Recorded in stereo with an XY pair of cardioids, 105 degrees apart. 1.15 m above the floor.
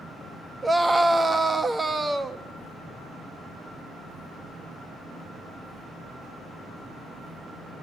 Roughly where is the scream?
Ahead.